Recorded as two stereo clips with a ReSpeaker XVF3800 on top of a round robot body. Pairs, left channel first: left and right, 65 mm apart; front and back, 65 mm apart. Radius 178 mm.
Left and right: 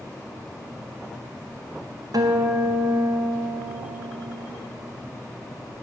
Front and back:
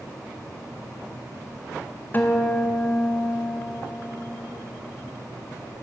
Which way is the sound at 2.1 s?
65° right.